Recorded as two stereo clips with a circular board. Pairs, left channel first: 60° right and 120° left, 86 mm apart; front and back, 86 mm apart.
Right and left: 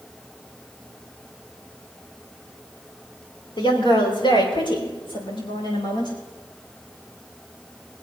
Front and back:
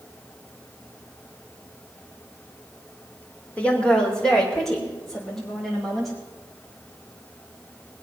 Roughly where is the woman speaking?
Right.